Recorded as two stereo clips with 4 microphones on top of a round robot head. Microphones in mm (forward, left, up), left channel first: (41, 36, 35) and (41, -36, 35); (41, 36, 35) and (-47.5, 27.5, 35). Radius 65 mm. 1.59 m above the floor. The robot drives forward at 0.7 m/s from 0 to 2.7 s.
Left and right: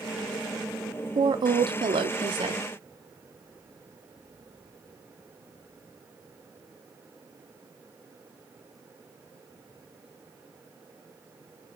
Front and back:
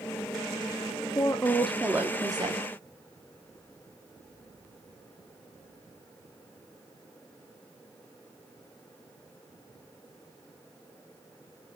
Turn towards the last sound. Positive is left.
turn(degrees=-125)